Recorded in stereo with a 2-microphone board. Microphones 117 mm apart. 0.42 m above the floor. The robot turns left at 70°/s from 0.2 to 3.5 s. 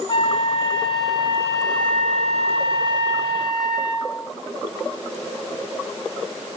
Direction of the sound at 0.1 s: 55° left.